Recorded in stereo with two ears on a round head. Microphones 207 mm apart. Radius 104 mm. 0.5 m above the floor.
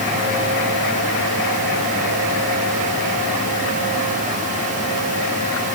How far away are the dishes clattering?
I don't hear dishes clattering.